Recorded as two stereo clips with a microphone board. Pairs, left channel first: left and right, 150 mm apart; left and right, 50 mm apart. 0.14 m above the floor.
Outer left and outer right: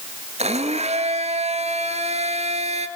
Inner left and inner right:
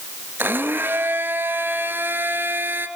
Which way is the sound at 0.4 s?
45° right (ahead or behind).